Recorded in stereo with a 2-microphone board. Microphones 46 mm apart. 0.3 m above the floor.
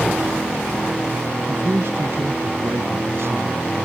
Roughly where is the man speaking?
Right.